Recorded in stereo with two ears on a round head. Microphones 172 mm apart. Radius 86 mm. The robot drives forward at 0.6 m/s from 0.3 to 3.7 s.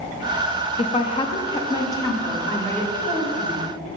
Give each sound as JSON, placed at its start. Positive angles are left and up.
{"t": 0.8, "sound": "a woman speaking", "side_deg": 30, "distance_m": 0.7}